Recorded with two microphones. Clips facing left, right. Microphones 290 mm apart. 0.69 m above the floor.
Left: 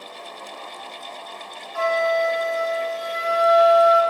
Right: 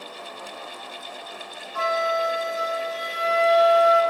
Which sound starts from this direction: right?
A flute, at 1.7 s.